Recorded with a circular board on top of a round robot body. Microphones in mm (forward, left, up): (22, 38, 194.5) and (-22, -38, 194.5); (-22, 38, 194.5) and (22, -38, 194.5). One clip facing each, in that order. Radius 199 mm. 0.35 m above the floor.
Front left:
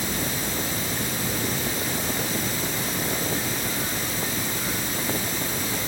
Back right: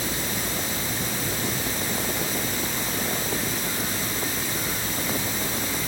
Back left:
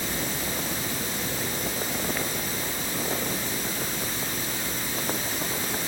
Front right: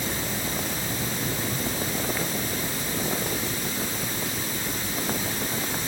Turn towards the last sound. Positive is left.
No sound to turn to.